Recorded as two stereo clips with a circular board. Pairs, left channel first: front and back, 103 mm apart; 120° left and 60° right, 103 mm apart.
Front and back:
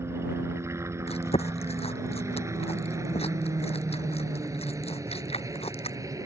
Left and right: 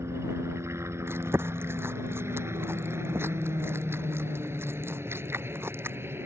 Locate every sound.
0.0 s a helicopter: 120° right; by 6.3 s 125° right
1.1 s chewing: 5° left